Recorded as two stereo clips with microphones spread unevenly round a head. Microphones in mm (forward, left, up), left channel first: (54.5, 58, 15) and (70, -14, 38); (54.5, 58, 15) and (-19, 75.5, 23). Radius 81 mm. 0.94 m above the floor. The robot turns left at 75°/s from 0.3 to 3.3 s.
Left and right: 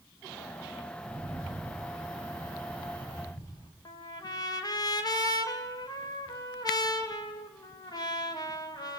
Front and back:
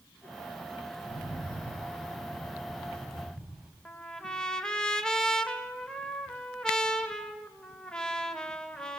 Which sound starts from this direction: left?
A trumpet, at 3.9 s.